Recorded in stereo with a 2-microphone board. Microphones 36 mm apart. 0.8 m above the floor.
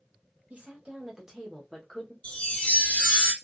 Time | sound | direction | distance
0.5 | a woman speaking | 40° right (ahead or behind) | 1.5 m
2.2 | a chime | 30° left (ahead or behind) | 0.9 m